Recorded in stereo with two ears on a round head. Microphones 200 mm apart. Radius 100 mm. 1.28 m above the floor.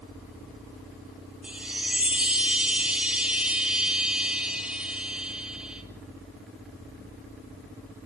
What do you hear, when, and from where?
1.4 s a chime: 5° right (ahead or behind), 3 m